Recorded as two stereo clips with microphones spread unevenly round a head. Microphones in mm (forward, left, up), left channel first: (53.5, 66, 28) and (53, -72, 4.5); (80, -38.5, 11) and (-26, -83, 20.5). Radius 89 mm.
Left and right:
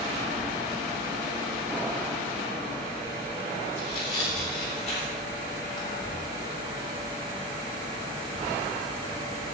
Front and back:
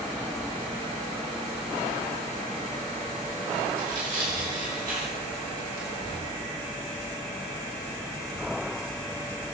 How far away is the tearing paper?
About 3.5 m.